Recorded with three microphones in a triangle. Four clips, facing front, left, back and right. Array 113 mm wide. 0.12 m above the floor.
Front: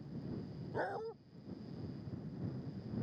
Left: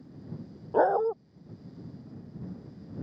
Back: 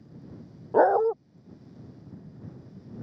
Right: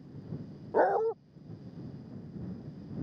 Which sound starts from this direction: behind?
A dog barking, at 0.7 s.